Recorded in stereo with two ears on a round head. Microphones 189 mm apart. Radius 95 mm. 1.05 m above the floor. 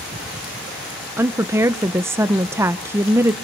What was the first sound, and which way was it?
A woman speaking, 10° right (ahead or behind).